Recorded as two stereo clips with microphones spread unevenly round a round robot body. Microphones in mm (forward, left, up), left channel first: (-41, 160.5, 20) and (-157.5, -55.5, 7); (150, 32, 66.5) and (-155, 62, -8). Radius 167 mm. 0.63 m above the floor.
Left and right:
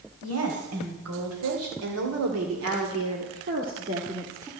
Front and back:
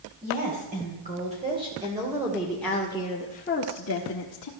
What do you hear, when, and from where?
0.2 s a woman speaking: 130° right, 3.5 m; by 4.5 s 35° right, 1.8 m